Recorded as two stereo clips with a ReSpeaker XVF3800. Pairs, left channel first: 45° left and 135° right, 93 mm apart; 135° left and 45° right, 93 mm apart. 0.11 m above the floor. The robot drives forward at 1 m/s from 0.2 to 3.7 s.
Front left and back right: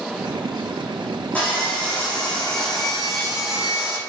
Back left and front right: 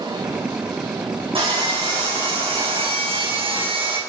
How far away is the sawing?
About 4.5 m.